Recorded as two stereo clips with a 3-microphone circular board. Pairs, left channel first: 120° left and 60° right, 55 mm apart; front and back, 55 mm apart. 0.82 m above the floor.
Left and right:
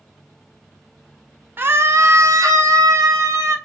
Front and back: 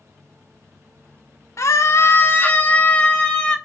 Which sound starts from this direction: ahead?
A scream, at 1.6 s.